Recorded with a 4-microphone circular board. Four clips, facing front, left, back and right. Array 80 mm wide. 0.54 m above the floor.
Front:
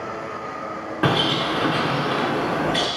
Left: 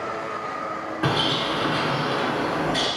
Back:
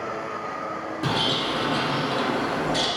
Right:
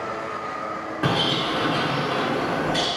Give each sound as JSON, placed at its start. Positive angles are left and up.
{"t": 1.0, "sound": "a bird", "azimuth_deg": 0, "distance_m": 0.6}